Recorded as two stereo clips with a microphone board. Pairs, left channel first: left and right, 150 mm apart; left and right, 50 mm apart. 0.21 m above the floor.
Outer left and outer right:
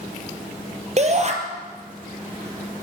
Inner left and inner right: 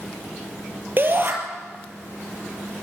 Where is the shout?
45° right (ahead or behind), 4.5 m.